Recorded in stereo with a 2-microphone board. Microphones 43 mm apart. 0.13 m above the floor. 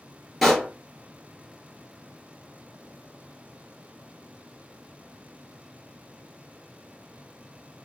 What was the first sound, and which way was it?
A pop, centre (ahead or behind).